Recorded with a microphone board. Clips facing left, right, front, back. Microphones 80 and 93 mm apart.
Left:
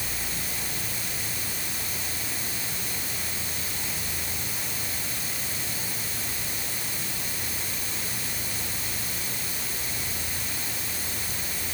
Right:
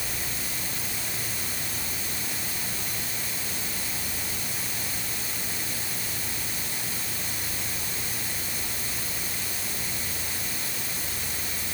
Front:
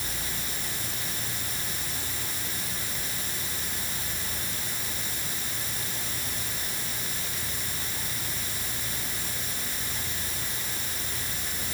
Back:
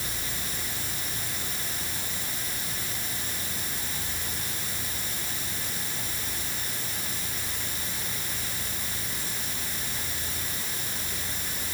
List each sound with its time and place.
Only background noise.